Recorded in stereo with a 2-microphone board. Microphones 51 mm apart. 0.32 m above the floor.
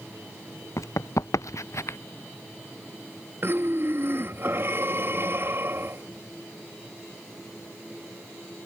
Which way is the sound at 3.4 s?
45° right (ahead or behind).